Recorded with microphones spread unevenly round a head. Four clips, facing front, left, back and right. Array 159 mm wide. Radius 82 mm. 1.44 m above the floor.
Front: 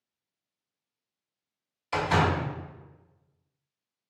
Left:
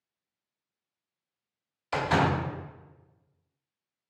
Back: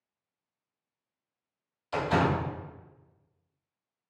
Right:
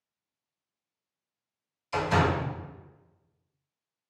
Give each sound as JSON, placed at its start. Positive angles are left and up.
{"t": 1.9, "sound": "a door slam", "azimuth_deg": 75, "distance_m": 2.5}